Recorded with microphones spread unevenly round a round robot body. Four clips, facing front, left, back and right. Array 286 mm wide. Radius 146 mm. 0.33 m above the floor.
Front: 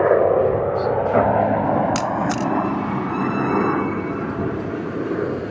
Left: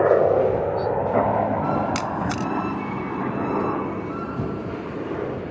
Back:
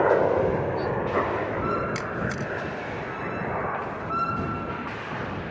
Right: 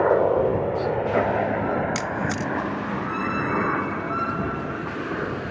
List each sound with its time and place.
0.0 s a helicopter: 30° left; by 5.5 s straight ahead
1.9 s a camera shutter: 25° left